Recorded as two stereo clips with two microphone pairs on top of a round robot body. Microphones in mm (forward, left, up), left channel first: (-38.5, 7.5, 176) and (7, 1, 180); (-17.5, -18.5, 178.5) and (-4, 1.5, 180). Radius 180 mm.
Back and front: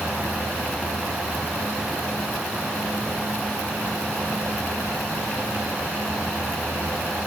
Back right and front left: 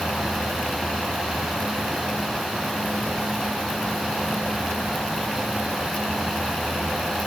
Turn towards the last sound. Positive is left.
No sound to turn to.